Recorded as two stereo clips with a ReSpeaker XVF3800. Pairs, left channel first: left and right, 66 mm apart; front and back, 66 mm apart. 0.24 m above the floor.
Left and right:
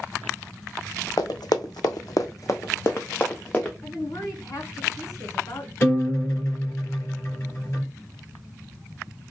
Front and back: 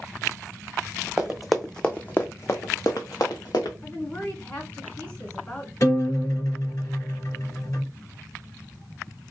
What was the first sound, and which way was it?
Running footsteps, 100° left.